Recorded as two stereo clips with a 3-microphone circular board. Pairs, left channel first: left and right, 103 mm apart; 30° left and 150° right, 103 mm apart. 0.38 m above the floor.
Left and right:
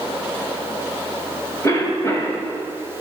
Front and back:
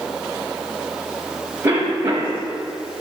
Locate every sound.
1.6 s a cough: 145° left, 2 m